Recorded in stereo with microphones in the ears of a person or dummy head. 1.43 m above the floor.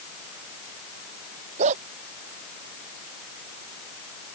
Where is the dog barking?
40° right (ahead or behind).